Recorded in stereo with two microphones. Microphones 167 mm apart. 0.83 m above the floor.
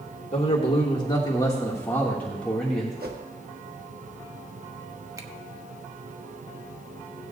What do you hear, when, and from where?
0.3 s a man speaking: 40° left (ahead or behind), 1.9 m; by 3.0 s centre (ahead or behind), 2 m
3.0 s a whoosh: 70° right (ahead or behind), 1.3 m
5.2 s a finger snap: 20° right (ahead or behind), 0.9 m